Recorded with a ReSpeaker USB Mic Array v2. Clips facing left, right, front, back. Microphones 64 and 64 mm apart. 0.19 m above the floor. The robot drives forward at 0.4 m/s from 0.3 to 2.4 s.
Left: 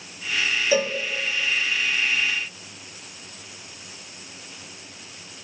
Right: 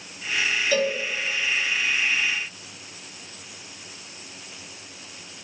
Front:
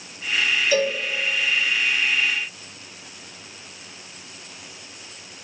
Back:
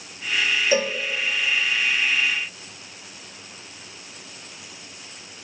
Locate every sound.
0.7 s a cowbell: 140° left, 0.8 m; by 1.0 s 150° left, 0.9 m